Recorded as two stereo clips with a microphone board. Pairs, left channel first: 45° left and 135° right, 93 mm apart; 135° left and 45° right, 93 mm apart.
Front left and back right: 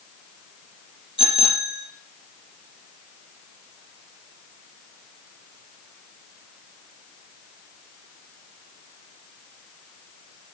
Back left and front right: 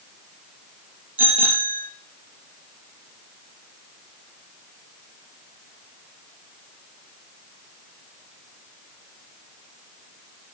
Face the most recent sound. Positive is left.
turn(degrees=30)